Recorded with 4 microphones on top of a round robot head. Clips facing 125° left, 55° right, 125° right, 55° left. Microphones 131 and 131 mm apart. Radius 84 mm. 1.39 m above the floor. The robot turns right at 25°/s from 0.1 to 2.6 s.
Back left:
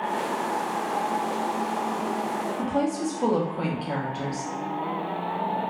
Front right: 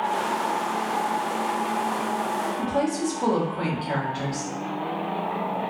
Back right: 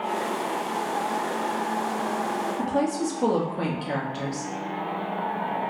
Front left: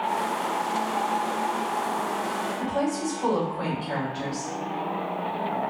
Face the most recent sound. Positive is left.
turn(degrees=-155)